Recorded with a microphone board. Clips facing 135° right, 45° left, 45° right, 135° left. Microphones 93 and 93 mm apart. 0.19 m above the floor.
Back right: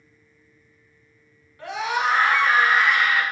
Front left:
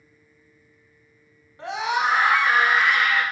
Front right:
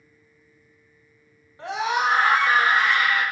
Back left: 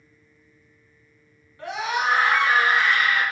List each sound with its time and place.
1.6 s a scream: straight ahead, 1.2 m; by 3.2 s 55° right, 1.4 m